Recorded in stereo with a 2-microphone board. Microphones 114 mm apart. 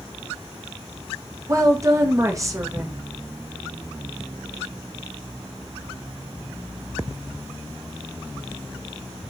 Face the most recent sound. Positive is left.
turn(degrees=-25)  # may be behind; listen again after turning